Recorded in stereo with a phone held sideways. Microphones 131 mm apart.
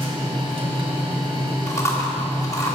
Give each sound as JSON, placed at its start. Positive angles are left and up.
{"t": 0.0, "sound": "a machine running", "side_deg": -45, "distance_m": 2.0}
{"t": 1.7, "sound": "chewing", "side_deg": 25, "distance_m": 1.6}